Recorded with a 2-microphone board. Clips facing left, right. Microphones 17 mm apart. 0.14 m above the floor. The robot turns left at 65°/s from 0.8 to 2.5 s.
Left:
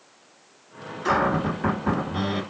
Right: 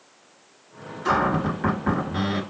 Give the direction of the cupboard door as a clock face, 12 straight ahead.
11 o'clock.